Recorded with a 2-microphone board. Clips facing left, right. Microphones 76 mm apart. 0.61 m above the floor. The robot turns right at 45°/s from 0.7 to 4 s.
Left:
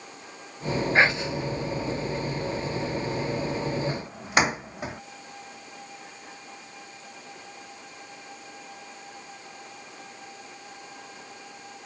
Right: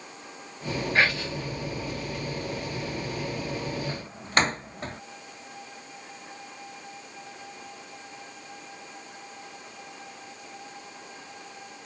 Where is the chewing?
I don't hear chewing.